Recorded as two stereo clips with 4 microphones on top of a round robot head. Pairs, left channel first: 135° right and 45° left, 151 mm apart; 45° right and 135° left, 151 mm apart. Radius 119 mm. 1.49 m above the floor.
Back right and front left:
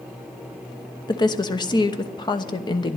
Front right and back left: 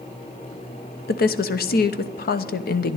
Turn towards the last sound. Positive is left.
turn(degrees=-70)